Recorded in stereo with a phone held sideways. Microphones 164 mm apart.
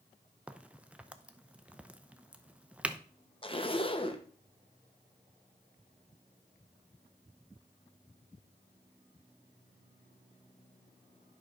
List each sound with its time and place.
0.5 s a crack: 10° right (ahead or behind), 0.6 m
3.4 s a zipper: 35° left (ahead or behind), 0.9 m